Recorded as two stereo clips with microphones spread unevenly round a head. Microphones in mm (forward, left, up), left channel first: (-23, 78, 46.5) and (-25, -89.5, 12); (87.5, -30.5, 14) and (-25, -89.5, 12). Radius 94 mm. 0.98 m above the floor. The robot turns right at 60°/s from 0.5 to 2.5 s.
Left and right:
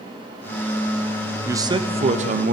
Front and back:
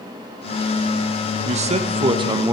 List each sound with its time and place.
1.4 s a man speaking: 155° right, 1.0 m; by 2.5 s 90° right, 1.0 m